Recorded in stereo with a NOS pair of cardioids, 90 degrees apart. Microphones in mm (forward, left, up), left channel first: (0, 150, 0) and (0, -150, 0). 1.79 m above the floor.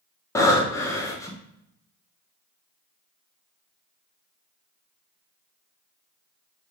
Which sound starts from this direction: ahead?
Breathing, at 0.3 s.